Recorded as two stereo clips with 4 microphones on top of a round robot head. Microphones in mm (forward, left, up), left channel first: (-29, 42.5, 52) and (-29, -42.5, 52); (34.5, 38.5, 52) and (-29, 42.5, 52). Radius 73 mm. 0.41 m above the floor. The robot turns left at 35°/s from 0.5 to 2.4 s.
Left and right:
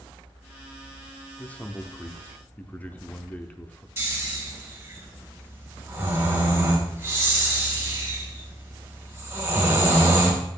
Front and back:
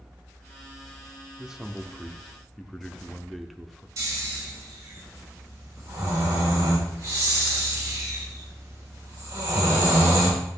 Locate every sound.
1.4 s a man speaking: 115° left, 0.8 m; by 3.9 s 80° left, 0.8 m
4.0 s snoring: 150° right, 3 m